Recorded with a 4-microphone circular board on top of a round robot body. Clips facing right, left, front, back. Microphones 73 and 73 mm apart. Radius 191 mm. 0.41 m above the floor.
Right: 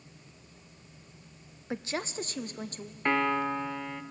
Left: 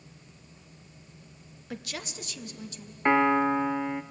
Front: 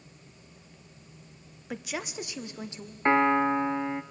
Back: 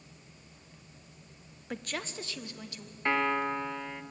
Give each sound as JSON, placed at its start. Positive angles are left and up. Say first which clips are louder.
{"t": 1.7, "sound": "a woman speaking", "louder": "right 5 dB, front 2 dB", "azimuth_deg": -85, "distance_m": 1.0}
{"t": 3.0, "sound": "a piano", "louder": "left 5 dB, front 6 dB", "azimuth_deg": 35, "distance_m": 0.9}